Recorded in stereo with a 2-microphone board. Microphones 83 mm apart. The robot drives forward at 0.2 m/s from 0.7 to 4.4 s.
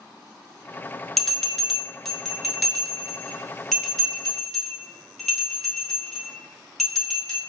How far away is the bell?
About 0.6 m.